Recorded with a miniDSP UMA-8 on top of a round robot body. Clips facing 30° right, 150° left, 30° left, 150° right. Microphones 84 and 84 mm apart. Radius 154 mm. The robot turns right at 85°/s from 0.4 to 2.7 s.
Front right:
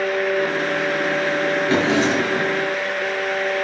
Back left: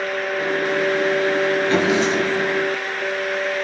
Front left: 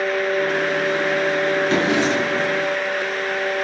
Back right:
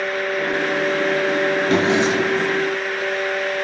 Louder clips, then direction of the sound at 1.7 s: Even, back right 1 dB; 105° right.